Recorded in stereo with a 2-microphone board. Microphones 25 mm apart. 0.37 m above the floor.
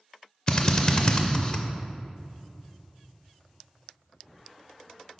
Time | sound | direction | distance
0.5 | a drill | 30° left (ahead or behind) | 0.5 m